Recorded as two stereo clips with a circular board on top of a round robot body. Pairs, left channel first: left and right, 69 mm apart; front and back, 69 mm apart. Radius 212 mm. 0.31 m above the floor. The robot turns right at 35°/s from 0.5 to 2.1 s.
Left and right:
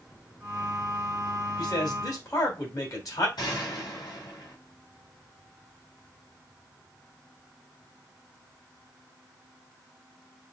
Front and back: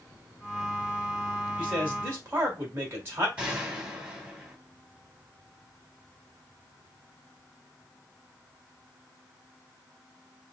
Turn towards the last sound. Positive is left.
turn(degrees=110)